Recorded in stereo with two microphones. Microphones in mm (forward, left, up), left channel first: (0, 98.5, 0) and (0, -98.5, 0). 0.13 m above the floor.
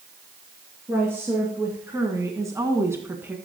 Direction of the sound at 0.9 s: 10° right (ahead or behind).